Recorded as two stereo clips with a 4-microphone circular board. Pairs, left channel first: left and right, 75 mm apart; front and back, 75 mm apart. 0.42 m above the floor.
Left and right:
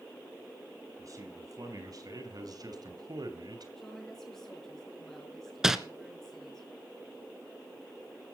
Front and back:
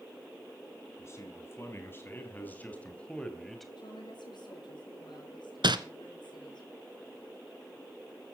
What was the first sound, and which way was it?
A man speaking, 50° right.